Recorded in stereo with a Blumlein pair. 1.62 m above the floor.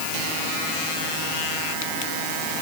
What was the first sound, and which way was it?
Only background noise.